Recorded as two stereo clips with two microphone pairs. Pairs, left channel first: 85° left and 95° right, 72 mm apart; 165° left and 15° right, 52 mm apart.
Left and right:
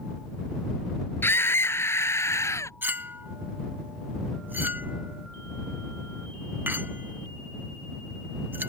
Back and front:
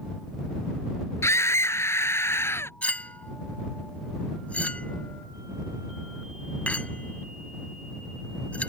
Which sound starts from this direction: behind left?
A scream, at 1.2 s.